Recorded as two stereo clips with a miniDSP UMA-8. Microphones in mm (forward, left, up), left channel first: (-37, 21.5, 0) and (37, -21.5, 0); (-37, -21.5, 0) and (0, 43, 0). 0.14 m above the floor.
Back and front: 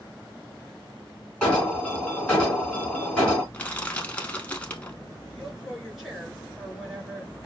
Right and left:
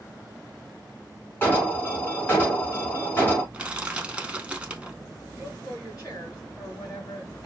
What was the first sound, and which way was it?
An alarm, 145° right.